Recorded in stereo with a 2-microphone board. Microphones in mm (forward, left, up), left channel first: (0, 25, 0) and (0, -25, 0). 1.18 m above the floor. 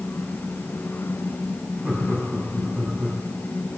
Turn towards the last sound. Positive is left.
turn(degrees=-40)  # may be behind; listen again after turning